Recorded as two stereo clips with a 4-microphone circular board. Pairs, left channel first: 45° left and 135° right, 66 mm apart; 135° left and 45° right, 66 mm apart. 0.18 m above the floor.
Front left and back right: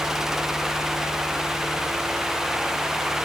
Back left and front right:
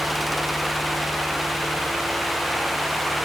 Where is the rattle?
I don't hear a rattle.